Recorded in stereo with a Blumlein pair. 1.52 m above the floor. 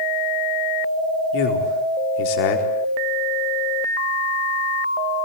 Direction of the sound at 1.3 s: 45° left.